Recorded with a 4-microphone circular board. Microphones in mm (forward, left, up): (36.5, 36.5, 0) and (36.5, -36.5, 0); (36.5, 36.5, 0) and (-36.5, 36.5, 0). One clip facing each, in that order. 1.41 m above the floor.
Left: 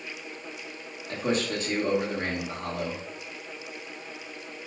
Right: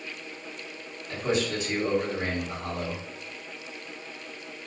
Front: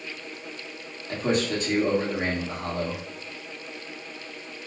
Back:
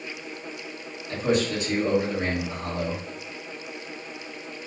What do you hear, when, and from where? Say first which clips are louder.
1.1 s a man speaking: even, back 1 dB; 45° left, 1.5 m